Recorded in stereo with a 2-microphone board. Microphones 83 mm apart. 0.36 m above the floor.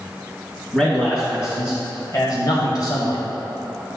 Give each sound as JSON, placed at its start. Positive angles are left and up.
{"t": 0.7, "sound": "a man speaking", "side_deg": 25, "distance_m": 2.5}